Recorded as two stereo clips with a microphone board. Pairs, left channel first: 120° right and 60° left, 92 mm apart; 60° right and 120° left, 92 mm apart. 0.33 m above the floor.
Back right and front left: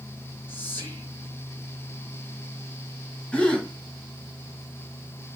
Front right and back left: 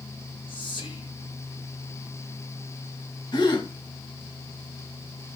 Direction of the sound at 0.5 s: 55° right.